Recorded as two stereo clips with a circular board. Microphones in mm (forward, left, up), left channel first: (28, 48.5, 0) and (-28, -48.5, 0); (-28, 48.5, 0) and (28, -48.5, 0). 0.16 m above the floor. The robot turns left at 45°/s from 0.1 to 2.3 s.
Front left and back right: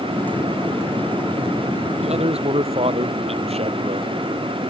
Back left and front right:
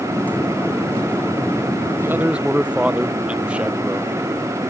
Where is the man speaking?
125° right; by 4.2 s 140° right.